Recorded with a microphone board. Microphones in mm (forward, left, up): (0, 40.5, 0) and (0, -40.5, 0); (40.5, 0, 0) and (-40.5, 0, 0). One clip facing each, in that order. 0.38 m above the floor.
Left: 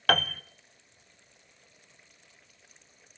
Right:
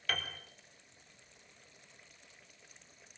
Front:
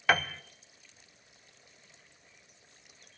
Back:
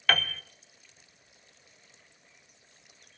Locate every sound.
0.1 s a piano: 75° left, 0.6 m